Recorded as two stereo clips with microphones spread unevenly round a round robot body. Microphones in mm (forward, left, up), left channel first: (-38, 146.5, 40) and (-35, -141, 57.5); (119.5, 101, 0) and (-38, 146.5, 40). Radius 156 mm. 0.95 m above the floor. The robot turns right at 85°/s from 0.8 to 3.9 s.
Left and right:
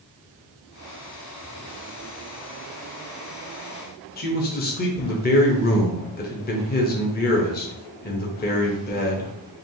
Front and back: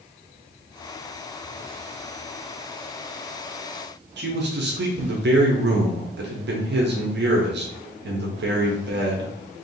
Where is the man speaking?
150° left, 0.9 m.